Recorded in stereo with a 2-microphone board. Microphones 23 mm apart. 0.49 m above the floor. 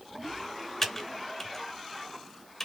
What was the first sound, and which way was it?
Typing on a keyboard, 15° left (ahead or behind).